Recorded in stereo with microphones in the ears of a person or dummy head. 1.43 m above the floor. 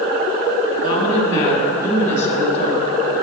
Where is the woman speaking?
30° left (ahead or behind), 3 m; by 3.2 s 50° left (ahead or behind), 3.5 m.